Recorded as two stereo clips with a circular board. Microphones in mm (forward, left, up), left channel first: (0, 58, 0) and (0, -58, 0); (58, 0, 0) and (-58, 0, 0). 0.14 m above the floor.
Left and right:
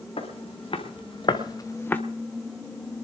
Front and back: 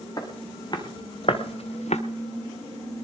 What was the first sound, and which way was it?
Footsteps, 55° left.